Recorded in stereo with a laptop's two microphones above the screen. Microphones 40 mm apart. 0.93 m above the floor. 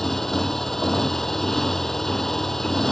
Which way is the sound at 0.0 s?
10° left (ahead or behind).